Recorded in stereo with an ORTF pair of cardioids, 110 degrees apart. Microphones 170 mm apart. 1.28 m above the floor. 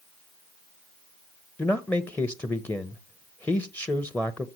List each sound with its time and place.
1.6 s a man speaking: 10° left, 0.8 m